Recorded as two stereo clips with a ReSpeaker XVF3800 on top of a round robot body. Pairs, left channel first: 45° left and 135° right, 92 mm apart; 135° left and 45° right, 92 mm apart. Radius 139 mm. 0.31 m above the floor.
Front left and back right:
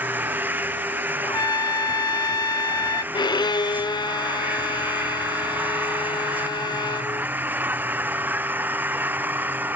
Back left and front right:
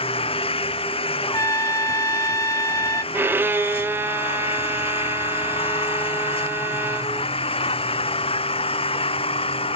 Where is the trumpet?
85° left.